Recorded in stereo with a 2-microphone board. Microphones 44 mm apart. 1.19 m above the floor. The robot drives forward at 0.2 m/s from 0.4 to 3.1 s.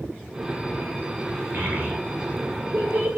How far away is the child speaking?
About 4 m.